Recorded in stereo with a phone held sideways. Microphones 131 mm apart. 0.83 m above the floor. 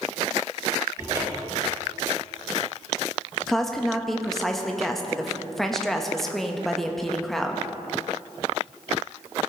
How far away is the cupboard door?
About 2.5 m.